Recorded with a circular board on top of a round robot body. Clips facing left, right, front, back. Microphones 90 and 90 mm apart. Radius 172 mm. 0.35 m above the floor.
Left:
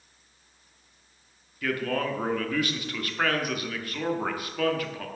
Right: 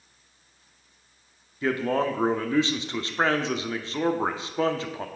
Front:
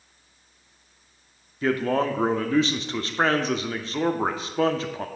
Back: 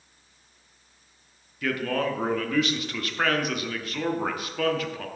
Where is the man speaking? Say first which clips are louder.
Right 4 dB, front 4 dB; 40° right, 1.0 m.